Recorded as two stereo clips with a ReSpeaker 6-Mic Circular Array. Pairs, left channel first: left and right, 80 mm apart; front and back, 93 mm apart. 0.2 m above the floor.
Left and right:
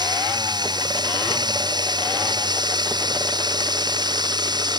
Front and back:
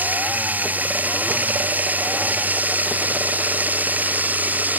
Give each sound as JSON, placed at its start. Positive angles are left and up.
{"t": 0.0, "sound": "running water", "azimuth_deg": -110}